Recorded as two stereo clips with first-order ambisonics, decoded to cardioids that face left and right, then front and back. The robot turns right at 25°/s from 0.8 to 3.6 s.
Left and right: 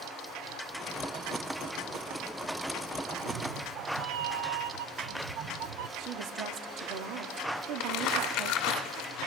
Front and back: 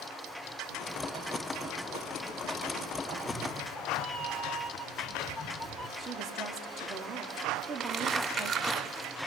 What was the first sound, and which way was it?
A cat meowing, 100° right.